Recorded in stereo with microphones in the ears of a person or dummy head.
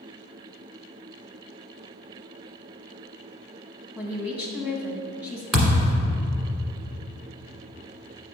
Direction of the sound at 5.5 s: 5° right (ahead or behind).